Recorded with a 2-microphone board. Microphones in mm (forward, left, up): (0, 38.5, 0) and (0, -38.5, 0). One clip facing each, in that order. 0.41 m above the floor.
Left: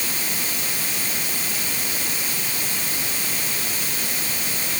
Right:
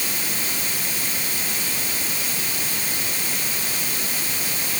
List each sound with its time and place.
Only background noise.